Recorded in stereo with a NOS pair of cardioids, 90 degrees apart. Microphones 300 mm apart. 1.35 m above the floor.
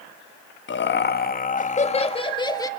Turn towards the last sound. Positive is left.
turn(degrees=10)